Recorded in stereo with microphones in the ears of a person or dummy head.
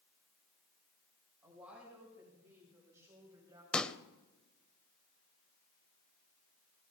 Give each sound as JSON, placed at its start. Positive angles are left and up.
{"t": 1.4, "sound": "a woman speaking", "side_deg": 0, "distance_m": 6.0}
{"t": 3.7, "sound": "a pop", "side_deg": 5, "distance_m": 0.7}